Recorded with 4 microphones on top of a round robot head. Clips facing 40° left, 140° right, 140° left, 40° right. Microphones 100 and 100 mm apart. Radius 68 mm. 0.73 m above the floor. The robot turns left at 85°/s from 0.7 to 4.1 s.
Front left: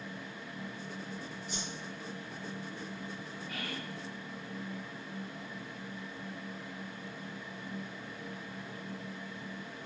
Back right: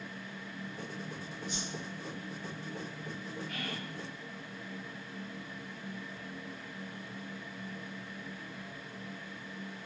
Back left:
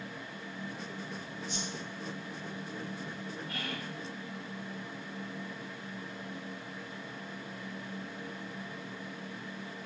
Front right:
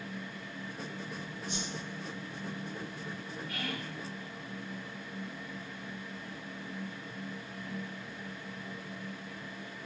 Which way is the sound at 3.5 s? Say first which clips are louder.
Even, front right 3 dB; 125° left.